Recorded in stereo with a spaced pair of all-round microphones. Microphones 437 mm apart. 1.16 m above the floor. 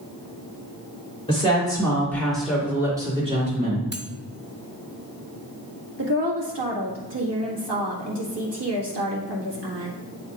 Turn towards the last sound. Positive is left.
turn(degrees=-80)